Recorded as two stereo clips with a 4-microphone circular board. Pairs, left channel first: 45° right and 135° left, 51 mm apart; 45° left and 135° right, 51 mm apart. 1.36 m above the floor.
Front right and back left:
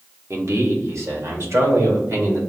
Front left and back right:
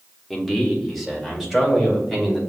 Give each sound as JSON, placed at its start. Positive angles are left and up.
{"t": 0.3, "sound": "a man speaking", "azimuth_deg": 135, "distance_m": 1.1}